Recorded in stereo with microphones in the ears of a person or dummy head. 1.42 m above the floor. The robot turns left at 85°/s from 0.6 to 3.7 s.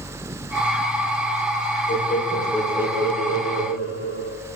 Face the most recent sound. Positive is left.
turn(degrees=-85)